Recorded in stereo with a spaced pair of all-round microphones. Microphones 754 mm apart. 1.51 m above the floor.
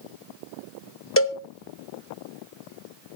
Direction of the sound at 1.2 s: 20° left (ahead or behind).